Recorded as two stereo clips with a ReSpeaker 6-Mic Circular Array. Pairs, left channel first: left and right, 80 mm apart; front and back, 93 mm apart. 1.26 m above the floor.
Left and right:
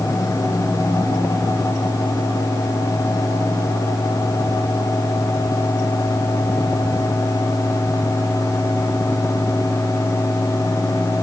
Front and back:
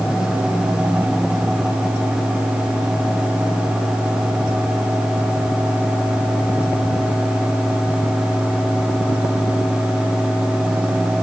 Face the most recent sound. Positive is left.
No sound to turn to.